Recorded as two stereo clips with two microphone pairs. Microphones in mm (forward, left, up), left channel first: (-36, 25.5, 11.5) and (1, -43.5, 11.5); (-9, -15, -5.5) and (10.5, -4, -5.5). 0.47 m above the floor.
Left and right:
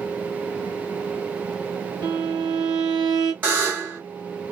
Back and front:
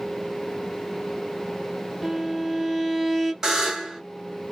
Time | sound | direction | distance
2.0 | a violin | 60° right | 0.7 m
3.4 | a buzzer | 10° right | 1.5 m